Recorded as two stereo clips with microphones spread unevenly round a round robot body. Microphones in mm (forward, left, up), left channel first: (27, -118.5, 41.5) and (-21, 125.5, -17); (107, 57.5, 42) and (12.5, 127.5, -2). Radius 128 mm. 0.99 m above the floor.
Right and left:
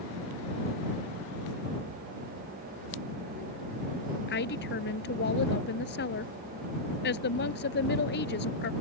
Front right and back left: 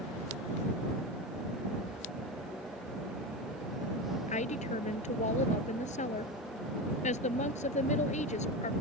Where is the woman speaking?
30° right.